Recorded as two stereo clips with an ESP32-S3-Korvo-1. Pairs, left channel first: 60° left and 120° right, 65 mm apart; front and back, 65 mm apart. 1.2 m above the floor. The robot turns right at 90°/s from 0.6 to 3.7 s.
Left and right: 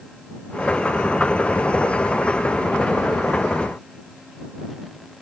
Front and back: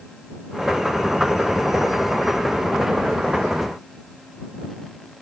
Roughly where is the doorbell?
I don't hear a doorbell.